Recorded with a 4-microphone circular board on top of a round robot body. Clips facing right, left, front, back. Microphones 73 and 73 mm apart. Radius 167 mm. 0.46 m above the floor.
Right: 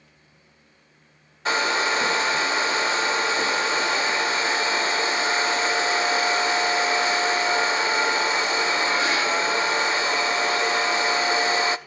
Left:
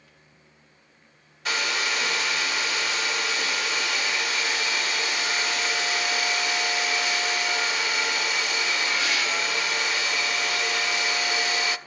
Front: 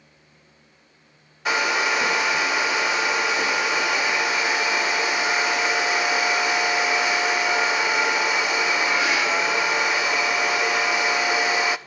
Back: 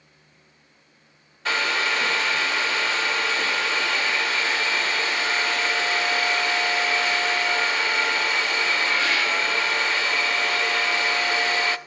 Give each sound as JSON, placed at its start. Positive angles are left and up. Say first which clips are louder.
{"t": 1.4, "sound": "a hair dryer", "louder": "right 5 dB, front 2 dB", "azimuth_deg": -65, "distance_m": 0.5}